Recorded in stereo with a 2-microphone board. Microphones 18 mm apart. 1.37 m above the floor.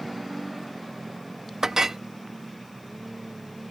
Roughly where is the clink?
Right.